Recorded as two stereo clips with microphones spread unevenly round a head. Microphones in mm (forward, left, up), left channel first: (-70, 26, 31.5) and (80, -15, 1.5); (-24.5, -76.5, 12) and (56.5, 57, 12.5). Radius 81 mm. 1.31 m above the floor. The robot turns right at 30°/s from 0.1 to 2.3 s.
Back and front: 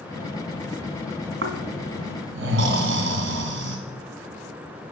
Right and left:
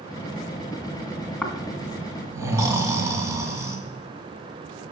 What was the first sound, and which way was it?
Snoring, 35° right.